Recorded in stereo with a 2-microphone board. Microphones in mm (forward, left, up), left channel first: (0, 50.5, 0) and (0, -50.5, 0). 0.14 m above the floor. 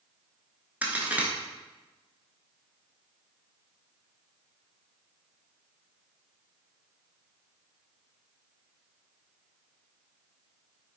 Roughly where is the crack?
Centre.